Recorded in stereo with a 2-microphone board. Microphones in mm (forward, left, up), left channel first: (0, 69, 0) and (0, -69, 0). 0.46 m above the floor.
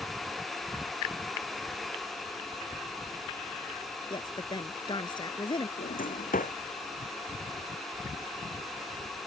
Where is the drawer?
90° left.